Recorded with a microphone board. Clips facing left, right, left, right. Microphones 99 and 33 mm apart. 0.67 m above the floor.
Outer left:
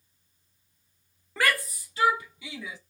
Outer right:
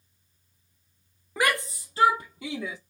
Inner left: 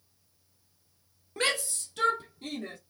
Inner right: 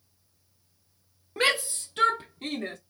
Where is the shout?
15° right (ahead or behind), 0.7 m; by 2.8 s 50° right (ahead or behind), 1.4 m.